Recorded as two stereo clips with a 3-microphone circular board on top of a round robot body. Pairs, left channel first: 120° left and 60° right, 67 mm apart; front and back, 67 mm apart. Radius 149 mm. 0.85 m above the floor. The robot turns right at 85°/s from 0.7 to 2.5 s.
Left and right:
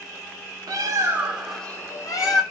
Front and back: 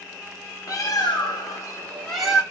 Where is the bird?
40° right, 1.0 m; by 2.4 s 110° left, 1.0 m.